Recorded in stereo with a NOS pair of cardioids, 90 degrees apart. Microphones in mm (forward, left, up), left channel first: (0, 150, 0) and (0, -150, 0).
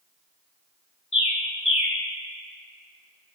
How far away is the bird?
About 1.9 m.